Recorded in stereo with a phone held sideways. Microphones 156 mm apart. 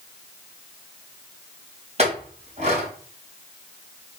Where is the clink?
45° right (ahead or behind), 2.5 m.